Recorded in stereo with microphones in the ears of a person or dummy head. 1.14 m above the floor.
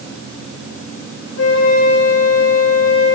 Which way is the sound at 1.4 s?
70° left (ahead or behind).